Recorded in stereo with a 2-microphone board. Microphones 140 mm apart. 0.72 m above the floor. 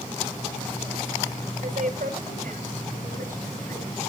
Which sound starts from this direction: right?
A woman speaking, at 1.6 s.